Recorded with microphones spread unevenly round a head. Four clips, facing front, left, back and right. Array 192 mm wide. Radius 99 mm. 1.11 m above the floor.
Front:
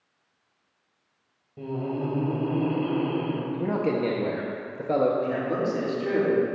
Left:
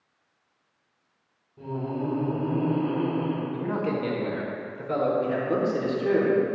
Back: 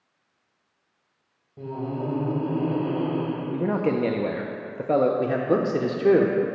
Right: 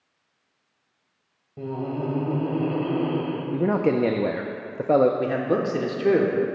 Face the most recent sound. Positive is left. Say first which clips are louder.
# right 2 dB, back 4 dB
turn(degrees=-150)